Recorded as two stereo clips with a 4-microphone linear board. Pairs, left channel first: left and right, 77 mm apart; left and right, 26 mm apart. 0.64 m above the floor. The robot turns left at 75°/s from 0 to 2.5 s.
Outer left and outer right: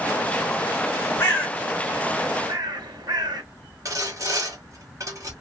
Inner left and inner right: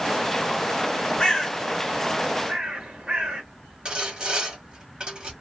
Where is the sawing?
45° right (ahead or behind), 1.1 m.